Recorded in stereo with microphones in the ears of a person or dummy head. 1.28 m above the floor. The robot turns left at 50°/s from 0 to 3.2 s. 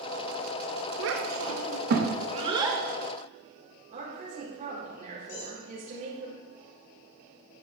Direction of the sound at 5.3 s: 75° left (ahead or behind).